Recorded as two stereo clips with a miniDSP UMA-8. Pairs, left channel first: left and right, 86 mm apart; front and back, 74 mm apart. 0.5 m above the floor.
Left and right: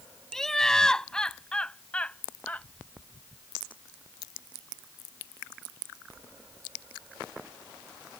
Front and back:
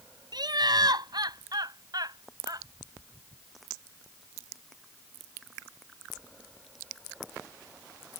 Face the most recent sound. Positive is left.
turn(degrees=160)